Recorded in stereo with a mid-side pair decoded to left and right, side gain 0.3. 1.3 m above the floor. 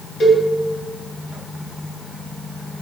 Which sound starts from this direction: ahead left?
A cowbell, at 0.2 s.